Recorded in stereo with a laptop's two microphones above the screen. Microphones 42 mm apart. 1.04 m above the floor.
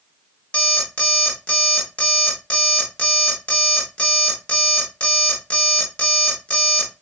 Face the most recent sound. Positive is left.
turn(degrees=30)  # may be behind; listen again after turning